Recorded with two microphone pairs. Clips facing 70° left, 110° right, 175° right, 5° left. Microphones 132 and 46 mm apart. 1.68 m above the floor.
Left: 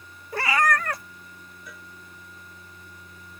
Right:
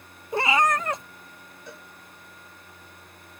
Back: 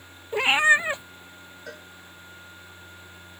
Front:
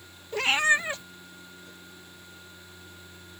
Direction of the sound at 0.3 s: 145° right.